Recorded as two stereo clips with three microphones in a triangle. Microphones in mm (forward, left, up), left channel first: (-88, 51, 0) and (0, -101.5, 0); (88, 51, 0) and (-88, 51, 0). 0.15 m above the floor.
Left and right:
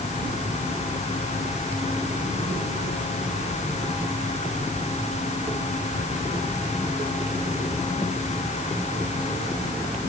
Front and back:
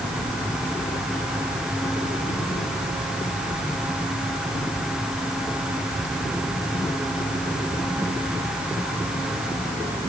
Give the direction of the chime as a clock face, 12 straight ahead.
No chime in this recording.